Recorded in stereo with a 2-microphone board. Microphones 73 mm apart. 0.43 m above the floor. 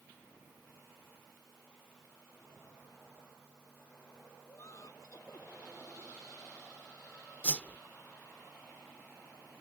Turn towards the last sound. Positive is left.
turn(degrees=20)  # may be behind; listen again after turning